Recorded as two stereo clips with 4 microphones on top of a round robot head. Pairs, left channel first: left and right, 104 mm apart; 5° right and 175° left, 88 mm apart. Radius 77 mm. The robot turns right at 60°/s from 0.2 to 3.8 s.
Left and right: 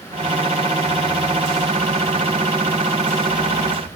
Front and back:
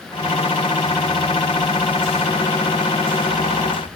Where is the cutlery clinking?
I don't hear cutlery clinking.